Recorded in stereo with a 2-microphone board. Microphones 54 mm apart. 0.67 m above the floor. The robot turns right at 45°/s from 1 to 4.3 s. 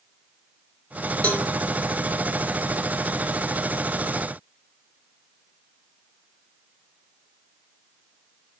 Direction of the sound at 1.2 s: 25° left (ahead or behind).